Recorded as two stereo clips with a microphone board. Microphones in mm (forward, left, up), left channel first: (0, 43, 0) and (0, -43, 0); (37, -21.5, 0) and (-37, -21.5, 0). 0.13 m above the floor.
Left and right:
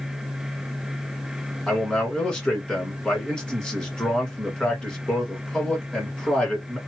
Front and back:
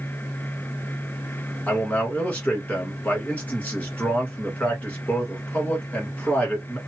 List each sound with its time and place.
1.7 s a man speaking: 30° left, 1.7 m